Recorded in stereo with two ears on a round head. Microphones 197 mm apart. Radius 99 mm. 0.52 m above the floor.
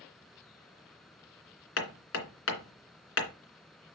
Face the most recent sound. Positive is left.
turn(degrees=65)  # may be behind; listen again after turning